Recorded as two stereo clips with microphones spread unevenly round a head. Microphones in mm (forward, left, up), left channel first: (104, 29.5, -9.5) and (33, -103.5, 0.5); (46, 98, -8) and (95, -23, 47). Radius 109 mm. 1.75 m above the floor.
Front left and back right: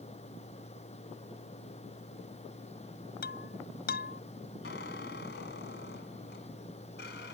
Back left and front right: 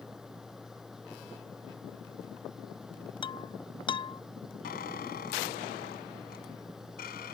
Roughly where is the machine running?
Ahead.